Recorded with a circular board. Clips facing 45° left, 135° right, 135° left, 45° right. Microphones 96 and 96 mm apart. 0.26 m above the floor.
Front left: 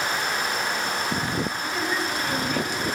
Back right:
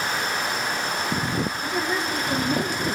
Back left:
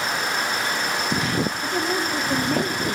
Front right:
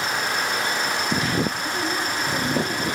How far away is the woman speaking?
About 6.5 m.